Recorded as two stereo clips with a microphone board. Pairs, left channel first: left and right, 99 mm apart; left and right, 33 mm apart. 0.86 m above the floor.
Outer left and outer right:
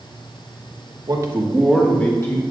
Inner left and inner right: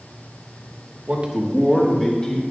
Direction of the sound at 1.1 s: 45° right (ahead or behind).